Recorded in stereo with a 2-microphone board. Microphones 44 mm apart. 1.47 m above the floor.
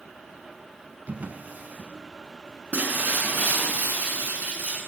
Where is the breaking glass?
40° right (ahead or behind), 7.5 m.